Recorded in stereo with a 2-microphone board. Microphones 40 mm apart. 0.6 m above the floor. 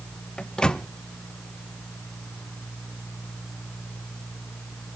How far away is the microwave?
About 0.5 m.